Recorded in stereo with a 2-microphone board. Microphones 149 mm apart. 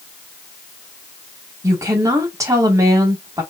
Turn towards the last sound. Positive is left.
turn(degrees=-20)  # may be behind; listen again after turning